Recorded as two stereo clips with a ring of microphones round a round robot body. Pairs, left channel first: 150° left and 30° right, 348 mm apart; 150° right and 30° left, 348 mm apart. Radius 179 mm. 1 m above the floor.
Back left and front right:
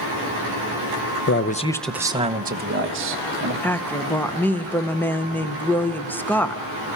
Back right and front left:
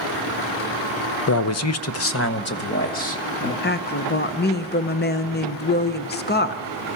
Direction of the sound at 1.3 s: 175° right.